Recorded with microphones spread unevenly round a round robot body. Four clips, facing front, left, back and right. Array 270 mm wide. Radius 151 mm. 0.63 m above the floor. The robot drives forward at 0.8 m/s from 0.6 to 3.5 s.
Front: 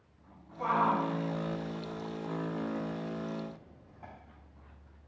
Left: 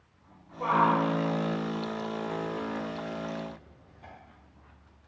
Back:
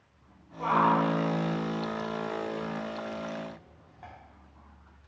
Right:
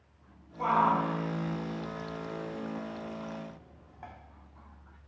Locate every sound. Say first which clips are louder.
0.6 s a shout: left 2 dB, back 4 dB; 90° right, 3 m; by 4.1 s 125° right, 4 m